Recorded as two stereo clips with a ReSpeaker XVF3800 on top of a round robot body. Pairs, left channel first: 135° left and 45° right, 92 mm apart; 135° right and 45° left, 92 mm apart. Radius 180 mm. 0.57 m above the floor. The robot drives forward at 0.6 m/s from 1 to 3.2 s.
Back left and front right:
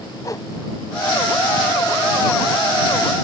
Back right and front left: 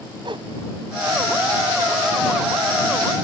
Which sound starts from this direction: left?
A whoosh, at 0.2 s.